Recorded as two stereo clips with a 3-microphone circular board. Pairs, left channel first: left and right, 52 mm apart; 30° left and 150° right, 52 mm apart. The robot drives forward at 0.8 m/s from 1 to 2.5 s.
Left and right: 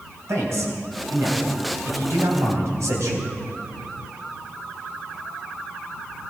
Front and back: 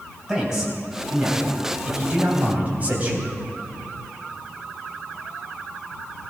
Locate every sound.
0.3 s a man speaking: 75° right, 4 m; by 3.3 s 90° right, 4 m